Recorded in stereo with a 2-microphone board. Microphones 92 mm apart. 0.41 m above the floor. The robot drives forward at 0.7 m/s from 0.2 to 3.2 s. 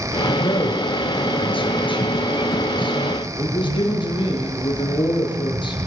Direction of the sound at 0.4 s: 75° left (ahead or behind).